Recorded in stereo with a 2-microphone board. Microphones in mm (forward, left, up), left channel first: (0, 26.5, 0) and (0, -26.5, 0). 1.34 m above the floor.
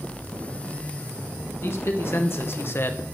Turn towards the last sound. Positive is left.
turn(degrees=40)  # may be behind; listen again after turning